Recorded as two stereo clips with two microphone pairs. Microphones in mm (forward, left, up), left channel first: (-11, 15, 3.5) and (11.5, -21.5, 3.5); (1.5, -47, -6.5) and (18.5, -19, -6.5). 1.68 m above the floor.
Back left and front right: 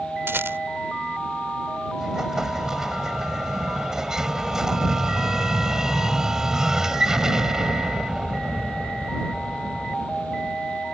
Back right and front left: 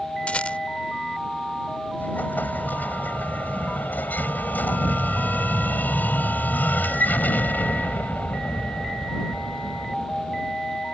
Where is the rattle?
75° right.